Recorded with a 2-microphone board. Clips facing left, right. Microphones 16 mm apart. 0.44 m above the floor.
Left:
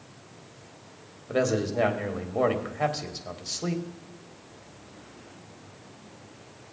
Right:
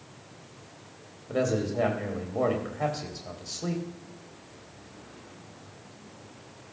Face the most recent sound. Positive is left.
turn(degrees=20)  # may be behind; listen again after turning